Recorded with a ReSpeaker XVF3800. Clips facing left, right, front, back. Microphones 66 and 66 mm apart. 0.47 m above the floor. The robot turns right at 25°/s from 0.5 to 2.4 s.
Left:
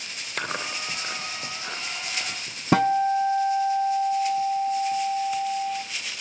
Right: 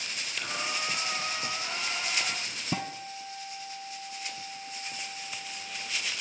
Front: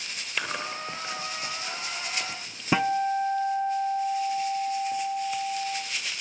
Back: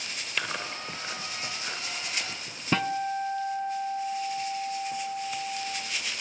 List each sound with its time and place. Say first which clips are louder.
0.4 s chewing: left 4 dB, front 2 dB; 85° left, 2.5 m; by 2.6 s 130° left, 2.5 m
2.7 s a guitar: left 18 dB, front 4 dB; 75° left, 0.9 m